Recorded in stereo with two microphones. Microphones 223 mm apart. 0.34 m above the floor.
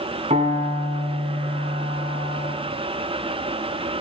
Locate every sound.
0.3 s a piano: 30° right (ahead or behind), 3.5 m